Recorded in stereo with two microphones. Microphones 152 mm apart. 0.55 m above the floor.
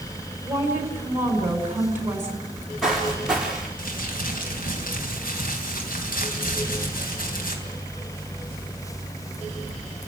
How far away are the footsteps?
About 6 m.